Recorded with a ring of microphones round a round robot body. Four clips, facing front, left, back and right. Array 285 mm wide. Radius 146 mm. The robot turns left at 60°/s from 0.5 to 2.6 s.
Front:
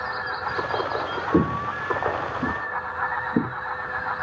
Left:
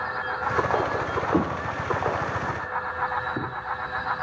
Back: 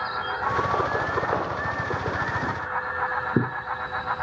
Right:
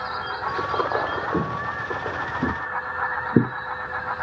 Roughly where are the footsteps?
Ahead.